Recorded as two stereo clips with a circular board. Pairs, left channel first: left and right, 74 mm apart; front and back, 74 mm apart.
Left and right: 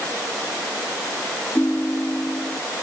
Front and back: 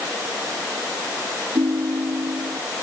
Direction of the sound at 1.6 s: 160° left.